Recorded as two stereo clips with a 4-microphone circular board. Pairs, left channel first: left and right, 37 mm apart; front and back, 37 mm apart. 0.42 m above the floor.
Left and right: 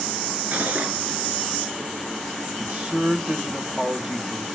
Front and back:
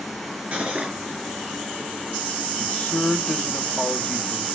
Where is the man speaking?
45° right, 2 m.